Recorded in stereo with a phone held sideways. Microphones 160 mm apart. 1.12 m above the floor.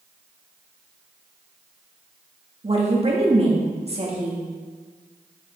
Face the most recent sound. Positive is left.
turn(degrees=-40)  # may be behind; listen again after turning